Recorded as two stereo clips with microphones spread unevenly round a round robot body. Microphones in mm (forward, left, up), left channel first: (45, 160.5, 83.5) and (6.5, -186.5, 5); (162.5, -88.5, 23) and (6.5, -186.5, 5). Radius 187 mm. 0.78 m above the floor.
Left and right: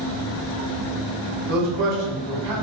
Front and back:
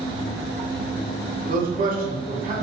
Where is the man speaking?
115° right, 1.1 m.